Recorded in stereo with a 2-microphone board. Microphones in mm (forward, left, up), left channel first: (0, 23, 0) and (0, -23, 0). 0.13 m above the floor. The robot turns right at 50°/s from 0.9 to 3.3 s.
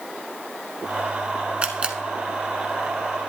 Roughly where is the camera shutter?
Right.